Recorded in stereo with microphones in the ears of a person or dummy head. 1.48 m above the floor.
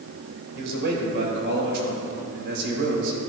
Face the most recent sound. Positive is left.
turn(degrees=-70)  # may be behind; listen again after turning